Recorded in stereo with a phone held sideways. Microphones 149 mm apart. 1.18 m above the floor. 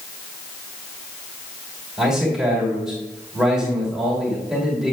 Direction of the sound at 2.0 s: 5° right (ahead or behind).